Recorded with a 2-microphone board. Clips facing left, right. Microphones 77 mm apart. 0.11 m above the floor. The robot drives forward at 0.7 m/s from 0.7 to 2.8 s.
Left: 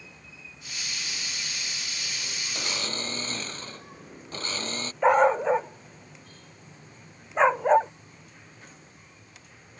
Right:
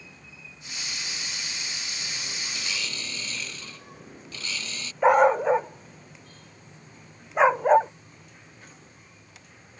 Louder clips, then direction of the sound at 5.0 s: Right 2 dB; 5° right (ahead or behind).